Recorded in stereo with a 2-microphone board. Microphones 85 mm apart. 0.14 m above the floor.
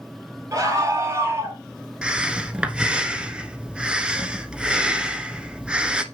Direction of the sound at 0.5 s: 40° right (ahead or behind).